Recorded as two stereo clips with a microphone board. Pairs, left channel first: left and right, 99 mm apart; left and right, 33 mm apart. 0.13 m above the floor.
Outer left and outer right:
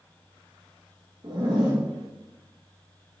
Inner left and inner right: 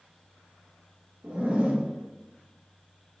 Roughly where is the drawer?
I don't hear a drawer.